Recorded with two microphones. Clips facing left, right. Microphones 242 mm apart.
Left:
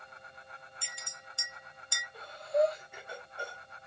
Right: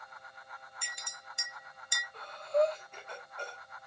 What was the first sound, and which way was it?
A clink, 20° right (ahead or behind).